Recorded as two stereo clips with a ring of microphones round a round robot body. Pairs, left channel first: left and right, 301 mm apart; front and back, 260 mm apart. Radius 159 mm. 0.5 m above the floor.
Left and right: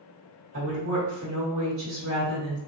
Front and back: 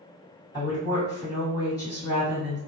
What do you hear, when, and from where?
0.5 s a woman speaking: 70° right, 1.7 m